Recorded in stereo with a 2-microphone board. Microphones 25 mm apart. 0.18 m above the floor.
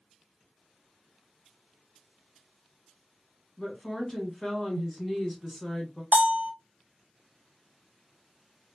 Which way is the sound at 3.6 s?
20° left (ahead or behind).